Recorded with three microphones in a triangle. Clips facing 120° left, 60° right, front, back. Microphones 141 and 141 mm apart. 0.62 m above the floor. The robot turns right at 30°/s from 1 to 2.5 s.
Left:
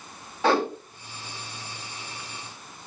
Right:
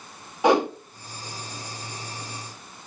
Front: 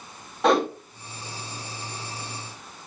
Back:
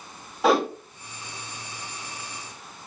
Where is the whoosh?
100° right, 1.0 m.